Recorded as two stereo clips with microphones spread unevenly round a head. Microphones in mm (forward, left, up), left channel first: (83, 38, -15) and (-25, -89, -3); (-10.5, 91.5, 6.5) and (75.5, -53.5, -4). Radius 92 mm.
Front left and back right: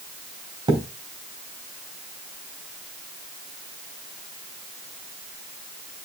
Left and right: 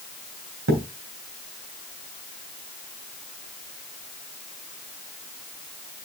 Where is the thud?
70° right, 3 m.